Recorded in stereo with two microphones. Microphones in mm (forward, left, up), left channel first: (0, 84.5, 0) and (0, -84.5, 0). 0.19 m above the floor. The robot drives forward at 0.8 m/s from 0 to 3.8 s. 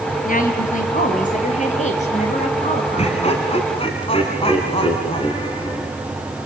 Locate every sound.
0.2 s a woman speaking: 55° left (ahead or behind), 4 m; by 3.4 s 40° left (ahead or behind), 6 m
3.0 s laughter: 40° left (ahead or behind), 2 m; by 5.9 s 35° left (ahead or behind), 2.5 m